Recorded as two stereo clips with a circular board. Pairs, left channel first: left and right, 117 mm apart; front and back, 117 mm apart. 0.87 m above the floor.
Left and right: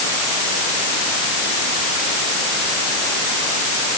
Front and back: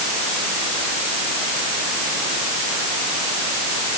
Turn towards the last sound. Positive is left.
No sound to turn to.